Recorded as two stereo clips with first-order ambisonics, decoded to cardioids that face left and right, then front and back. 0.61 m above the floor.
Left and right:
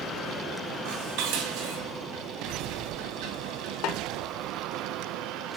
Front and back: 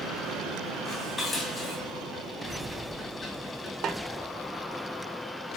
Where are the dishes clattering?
80° right, 2.5 m.